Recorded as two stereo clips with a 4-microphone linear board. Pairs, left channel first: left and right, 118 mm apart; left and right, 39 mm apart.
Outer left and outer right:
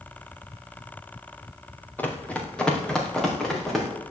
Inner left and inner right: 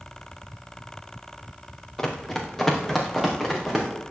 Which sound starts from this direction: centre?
Running footsteps, at 2.0 s.